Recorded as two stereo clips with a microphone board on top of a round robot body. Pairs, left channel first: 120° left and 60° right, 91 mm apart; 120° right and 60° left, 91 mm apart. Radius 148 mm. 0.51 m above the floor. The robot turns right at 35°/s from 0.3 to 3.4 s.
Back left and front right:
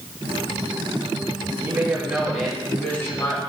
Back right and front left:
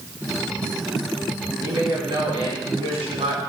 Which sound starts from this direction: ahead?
A woman speaking, at 1.6 s.